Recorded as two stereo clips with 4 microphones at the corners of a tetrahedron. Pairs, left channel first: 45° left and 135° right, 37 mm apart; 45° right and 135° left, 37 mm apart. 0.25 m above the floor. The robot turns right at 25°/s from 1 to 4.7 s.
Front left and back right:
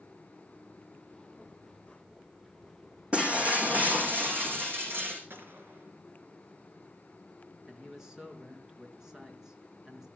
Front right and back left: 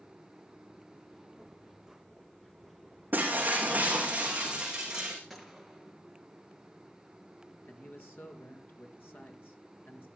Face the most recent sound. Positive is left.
turn(degrees=-60)